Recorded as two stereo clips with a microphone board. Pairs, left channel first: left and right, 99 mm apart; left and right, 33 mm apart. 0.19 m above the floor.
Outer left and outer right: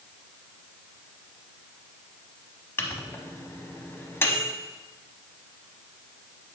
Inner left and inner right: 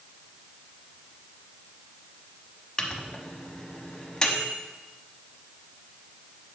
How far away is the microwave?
About 0.8 m.